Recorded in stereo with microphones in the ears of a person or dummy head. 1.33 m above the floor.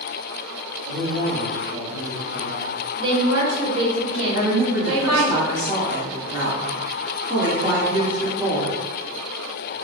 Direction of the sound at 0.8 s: 70° right (ahead or behind).